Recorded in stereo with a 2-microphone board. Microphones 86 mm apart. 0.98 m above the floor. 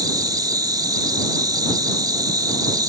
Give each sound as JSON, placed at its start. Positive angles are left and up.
{"t": 0.0, "sound": "an insect", "side_deg": -50}